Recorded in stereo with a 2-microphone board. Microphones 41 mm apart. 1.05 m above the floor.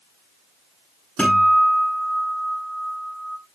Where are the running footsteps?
No running footsteps in this recording.